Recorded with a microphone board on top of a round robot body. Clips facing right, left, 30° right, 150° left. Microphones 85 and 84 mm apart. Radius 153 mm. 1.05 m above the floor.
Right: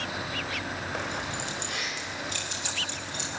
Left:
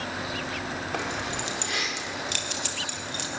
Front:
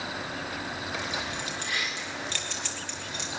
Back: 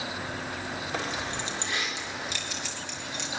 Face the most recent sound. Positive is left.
turn(degrees=60)